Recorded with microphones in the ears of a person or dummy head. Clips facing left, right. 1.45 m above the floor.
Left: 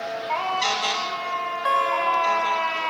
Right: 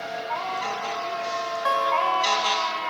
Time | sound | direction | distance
1.6 | a guitar | 10° left (ahead or behind) | 3 m